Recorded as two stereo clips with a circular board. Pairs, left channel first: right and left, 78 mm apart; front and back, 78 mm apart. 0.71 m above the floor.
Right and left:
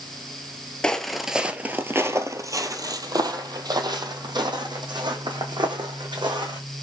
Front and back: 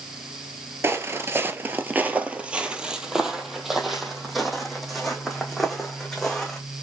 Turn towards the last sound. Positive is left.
turn(degrees=85)